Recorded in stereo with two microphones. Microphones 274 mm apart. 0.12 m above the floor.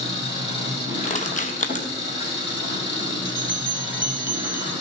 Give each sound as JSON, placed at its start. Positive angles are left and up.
{"t": 0.0, "sound": "an engine running", "side_deg": 40, "distance_m": 4.0}
{"t": 1.0, "sound": "crushing", "side_deg": 30, "distance_m": 0.9}
{"t": 3.2, "sound": "a bell", "side_deg": -40, "distance_m": 0.9}